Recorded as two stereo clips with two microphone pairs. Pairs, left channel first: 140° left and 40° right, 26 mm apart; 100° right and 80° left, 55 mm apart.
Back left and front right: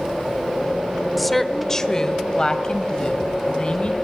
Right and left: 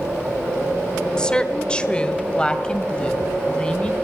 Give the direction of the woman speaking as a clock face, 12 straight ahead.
4 o'clock.